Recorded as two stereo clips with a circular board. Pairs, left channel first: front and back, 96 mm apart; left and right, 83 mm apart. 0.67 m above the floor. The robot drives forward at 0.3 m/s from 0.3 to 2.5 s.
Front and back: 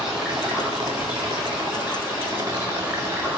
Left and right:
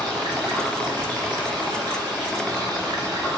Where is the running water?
105° right, 1.8 m; by 3.4 s 120° right, 2 m.